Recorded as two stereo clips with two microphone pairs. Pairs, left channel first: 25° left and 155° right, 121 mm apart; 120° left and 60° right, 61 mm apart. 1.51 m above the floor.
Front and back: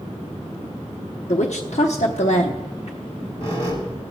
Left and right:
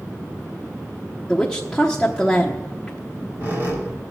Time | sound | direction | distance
1.3 | a woman speaking | 30° left | 0.9 m
3.0 | a squeak | 15° right | 4 m